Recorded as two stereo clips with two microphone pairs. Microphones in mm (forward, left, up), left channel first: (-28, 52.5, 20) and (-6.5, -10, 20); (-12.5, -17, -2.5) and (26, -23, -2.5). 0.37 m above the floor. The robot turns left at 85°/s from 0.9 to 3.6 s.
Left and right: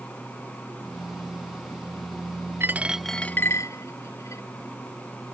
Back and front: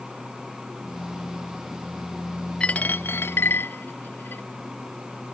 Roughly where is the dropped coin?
Behind right.